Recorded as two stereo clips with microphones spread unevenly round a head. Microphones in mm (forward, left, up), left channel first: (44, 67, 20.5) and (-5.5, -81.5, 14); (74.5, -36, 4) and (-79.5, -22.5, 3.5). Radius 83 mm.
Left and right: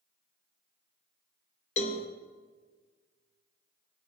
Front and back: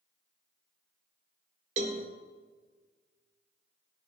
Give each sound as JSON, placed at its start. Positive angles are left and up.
{"t": 1.8, "sound": "a cowbell", "azimuth_deg": 120, "distance_m": 1.0}